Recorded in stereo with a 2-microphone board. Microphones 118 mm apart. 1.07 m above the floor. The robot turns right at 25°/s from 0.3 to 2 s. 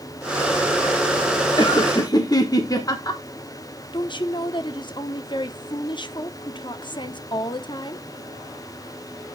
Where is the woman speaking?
40° left (ahead or behind), 0.8 m.